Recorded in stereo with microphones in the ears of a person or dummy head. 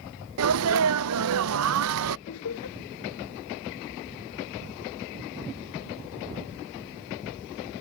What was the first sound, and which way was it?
A sneeze, 75° right (ahead or behind).